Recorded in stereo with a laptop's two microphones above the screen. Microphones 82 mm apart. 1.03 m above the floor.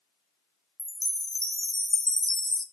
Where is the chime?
35° right (ahead or behind), 0.7 m.